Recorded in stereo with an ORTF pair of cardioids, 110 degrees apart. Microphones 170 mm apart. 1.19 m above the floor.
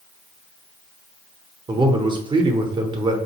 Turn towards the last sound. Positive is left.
turn(degrees=-25)